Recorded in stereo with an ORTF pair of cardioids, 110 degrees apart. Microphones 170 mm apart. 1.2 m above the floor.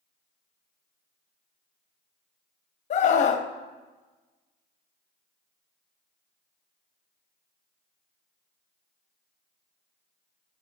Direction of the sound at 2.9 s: 45° left.